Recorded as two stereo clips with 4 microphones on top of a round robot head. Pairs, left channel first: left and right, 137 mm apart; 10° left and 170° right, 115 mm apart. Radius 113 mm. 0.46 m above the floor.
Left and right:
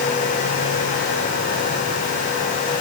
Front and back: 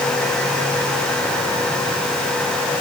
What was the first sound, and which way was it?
Only background noise.